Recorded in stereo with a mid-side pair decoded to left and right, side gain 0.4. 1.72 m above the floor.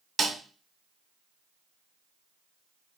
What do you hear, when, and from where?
0.2 s a snare drum: 45° right, 1.3 m